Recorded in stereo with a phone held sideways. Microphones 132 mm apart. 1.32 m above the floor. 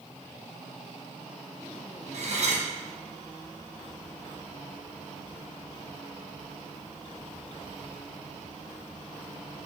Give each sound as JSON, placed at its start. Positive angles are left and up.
{"t": 2.1, "sound": "cutlery clinking", "side_deg": -55, "distance_m": 0.8}